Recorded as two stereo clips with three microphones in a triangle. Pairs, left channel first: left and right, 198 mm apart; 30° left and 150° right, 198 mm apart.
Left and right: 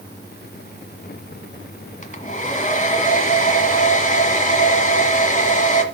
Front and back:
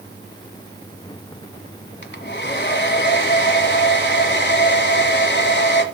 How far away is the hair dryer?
About 1.5 m.